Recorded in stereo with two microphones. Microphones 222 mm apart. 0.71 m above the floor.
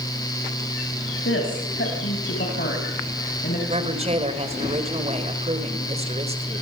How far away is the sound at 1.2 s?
About 5.5 m.